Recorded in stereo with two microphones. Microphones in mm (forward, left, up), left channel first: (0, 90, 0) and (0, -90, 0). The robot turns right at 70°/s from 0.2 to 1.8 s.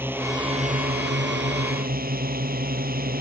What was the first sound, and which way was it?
A drone, 170° right.